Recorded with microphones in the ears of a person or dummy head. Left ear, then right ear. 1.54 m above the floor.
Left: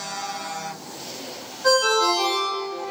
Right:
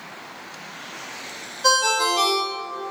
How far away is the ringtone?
About 1.2 m.